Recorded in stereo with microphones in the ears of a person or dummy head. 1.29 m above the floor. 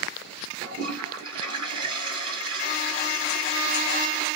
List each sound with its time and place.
0.6 s a toilet flushing: 30° right (ahead or behind), 1.3 m